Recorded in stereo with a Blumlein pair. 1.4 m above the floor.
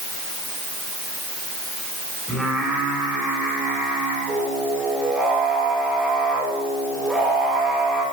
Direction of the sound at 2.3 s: Straight ahead.